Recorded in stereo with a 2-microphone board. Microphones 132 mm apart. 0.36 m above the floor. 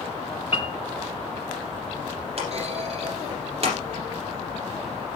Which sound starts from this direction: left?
A piano, at 0.5 s.